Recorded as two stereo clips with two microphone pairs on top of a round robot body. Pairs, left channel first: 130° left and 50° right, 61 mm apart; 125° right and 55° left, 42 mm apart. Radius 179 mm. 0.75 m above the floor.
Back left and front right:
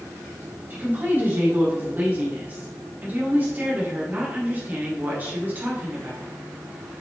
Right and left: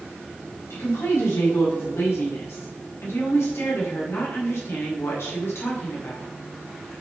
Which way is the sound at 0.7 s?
110° right.